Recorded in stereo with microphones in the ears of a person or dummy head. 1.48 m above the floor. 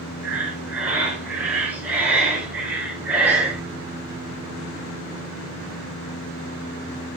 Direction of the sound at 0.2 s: 10° right (ahead or behind).